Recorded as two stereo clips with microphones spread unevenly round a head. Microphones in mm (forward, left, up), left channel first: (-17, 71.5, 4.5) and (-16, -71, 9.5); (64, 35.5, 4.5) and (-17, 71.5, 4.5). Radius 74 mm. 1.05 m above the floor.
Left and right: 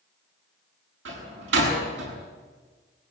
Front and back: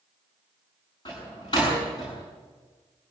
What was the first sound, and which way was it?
A door slam, 85° right.